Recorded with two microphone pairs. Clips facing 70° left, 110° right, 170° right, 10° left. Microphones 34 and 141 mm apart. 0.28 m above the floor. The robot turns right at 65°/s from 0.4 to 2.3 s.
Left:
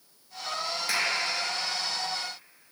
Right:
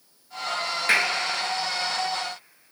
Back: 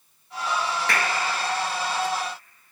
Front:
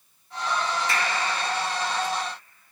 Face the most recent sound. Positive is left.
turn(degrees=-60)